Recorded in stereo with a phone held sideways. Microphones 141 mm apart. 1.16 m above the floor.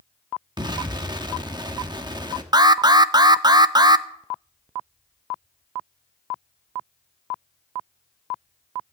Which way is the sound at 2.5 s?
30° right (ahead or behind).